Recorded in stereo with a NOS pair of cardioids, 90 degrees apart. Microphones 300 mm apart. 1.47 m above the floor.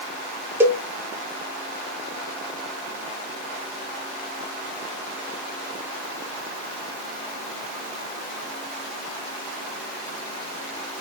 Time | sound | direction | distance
0.6 | a cowbell | 10° right | 0.7 m